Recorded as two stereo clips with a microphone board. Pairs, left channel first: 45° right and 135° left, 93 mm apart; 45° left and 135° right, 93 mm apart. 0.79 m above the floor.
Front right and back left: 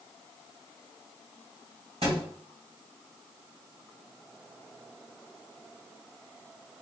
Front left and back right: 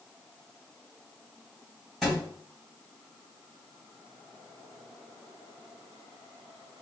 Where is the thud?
135° left, 1.9 m.